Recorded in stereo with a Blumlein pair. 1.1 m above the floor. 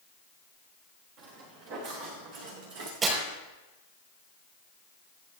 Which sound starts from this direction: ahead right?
Footsteps, at 1.2 s.